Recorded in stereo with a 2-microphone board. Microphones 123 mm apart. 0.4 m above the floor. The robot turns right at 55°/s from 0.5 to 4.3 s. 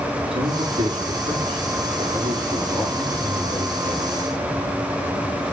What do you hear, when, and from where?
0.3 s a man speaking: 125° right, 4.5 m; by 4.1 s 75° left, 4.5 m